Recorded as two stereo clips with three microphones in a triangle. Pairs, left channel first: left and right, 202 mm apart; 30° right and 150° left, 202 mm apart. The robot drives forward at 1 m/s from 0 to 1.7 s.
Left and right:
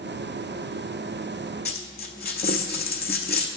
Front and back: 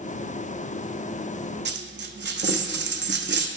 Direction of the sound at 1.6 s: 120° left.